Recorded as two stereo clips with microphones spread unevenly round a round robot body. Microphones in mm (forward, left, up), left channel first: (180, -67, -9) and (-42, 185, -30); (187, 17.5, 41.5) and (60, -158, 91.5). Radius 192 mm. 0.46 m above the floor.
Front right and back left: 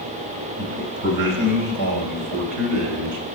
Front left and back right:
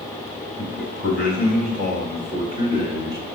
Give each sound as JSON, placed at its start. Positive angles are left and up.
{"t": 0.6, "sound": "a man speaking", "azimuth_deg": 170, "distance_m": 3.0}